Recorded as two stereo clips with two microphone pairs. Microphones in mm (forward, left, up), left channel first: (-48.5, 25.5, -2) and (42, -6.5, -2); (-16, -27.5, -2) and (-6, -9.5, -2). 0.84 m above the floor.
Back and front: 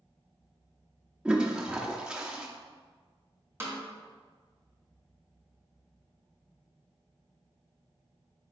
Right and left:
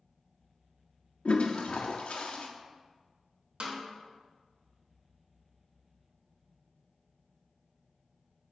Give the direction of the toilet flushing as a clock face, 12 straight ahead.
3 o'clock.